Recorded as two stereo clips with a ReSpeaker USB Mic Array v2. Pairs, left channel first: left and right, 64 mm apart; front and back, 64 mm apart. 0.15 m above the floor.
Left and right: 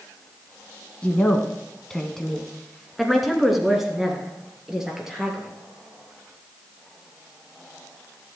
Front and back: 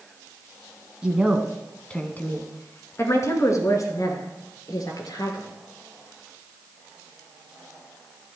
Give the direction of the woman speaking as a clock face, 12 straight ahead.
8 o'clock.